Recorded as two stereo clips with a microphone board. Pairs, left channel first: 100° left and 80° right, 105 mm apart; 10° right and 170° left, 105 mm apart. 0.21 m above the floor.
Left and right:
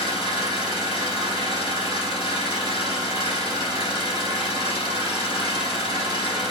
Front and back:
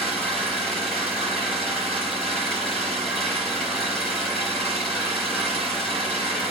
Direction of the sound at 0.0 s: 75° left.